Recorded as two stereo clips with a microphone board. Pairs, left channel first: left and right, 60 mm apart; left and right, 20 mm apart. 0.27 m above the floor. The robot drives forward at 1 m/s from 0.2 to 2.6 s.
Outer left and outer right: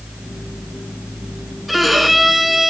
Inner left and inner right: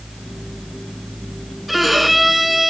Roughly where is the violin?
Centre.